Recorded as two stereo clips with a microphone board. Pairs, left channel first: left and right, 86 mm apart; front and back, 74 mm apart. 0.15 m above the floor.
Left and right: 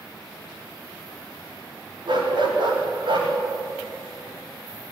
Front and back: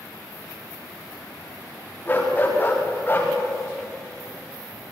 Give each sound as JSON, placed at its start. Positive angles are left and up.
{"t": 2.1, "sound": "a dog barking", "azimuth_deg": -70, "distance_m": 9.5}